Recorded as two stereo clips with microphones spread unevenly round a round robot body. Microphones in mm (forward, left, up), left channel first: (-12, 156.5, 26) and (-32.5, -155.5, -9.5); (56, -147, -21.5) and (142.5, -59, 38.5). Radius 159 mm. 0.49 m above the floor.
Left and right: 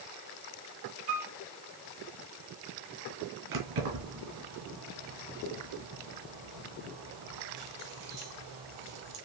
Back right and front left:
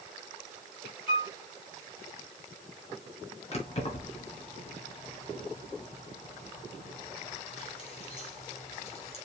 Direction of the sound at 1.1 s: 85° right.